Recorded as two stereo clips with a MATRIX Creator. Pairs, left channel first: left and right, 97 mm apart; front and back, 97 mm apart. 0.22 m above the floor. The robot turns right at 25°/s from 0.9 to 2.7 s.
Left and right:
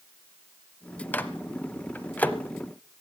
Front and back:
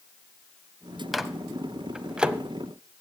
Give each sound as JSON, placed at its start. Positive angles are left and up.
{"t": 1.1, "sound": "a microwave", "azimuth_deg": 90, "distance_m": 0.7}